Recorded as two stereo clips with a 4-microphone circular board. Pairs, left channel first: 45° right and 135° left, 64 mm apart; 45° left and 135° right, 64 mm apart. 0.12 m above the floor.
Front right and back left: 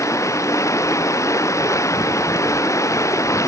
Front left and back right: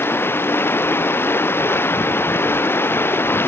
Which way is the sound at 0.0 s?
10° right.